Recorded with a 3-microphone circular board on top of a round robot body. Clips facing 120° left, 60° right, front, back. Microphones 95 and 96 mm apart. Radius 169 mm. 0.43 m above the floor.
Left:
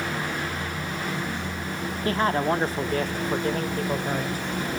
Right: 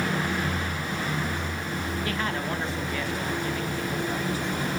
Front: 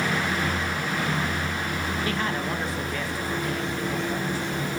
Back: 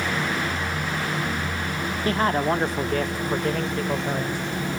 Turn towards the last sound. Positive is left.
turn(degrees=155)